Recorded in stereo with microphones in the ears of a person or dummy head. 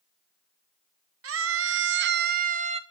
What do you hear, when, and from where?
1.2 s a scream: 75° right (ahead or behind), 1.1 m; by 2.8 s 35° right (ahead or behind), 0.9 m